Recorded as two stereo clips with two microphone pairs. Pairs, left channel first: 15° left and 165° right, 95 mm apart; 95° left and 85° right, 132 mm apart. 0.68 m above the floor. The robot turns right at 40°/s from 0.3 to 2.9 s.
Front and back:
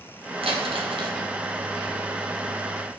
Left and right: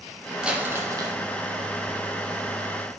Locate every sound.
0.4 s crumpling: 165° right, 1.5 m; by 1.2 s 135° right, 1.5 m